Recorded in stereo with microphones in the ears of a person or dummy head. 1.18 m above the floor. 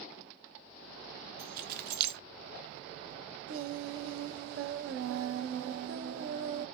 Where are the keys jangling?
55° right (ahead or behind), 0.6 m.